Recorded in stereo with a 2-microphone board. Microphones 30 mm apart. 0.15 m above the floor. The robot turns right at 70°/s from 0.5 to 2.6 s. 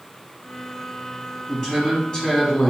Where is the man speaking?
10° left (ahead or behind), 1.1 m; by 2.7 s 25° left (ahead or behind), 1.1 m.